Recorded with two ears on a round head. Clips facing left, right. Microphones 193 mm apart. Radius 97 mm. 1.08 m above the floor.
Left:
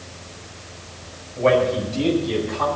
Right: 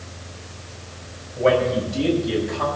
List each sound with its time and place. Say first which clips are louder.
1.4 s a man speaking: left 1 dB; 5° right (ahead or behind), 6.5 m; by 2.7 s 10° right (ahead or behind), 8 m